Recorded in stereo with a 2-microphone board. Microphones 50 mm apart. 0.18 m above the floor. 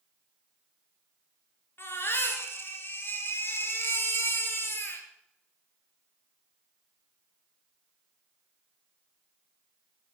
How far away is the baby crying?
About 2.5 m.